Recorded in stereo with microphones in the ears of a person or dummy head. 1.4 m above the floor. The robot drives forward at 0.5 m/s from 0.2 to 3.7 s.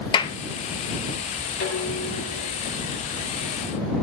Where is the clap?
25° left (ahead or behind), 0.9 m.